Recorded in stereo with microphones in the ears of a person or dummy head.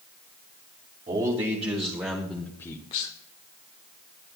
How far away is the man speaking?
About 2.5 m.